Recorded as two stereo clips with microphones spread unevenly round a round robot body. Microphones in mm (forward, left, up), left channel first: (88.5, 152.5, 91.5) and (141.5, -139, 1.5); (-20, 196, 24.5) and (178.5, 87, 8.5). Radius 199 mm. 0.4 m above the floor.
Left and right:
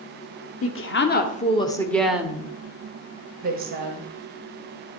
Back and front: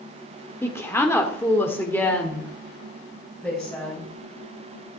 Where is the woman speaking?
75° left, 1.5 m; by 4.1 s 120° right, 2.5 m.